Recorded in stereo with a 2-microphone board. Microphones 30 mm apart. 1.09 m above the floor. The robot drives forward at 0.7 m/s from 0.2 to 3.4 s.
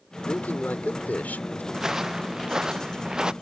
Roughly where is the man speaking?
Left.